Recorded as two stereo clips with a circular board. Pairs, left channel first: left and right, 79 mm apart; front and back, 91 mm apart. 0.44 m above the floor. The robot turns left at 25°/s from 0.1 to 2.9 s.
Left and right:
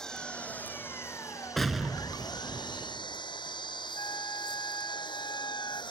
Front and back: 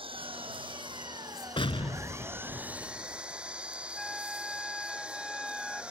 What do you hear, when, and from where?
0.0 s an engine running: 170° left; by 5.9 s 100° left
1.6 s an explosion: 5° left; by 3.2 s 30° right
3.9 s a flute: 85° left